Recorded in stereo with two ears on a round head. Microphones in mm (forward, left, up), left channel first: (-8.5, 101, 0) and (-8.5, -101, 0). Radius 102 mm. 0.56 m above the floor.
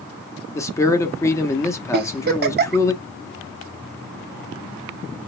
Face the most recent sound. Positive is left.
turn(degrees=-45)  # may be behind; listen again after turning